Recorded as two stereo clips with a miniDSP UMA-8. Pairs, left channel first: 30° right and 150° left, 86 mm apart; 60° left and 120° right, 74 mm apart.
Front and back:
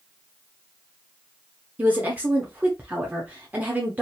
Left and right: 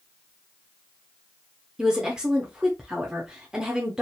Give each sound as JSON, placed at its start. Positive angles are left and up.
{"t": 1.8, "sound": "a woman speaking", "azimuth_deg": 175, "distance_m": 0.7}